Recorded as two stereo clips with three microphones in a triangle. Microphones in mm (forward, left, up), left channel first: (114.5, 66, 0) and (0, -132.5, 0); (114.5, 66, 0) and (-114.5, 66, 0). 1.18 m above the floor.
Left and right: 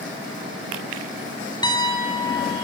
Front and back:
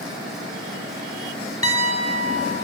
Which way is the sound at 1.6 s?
15° right.